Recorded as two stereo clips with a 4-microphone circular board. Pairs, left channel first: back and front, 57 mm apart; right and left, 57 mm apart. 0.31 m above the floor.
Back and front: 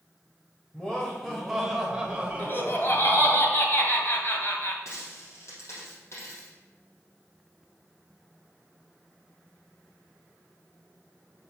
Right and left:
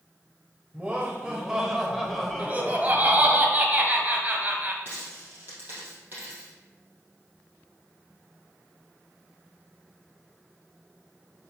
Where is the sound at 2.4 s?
145° left, 1.5 m.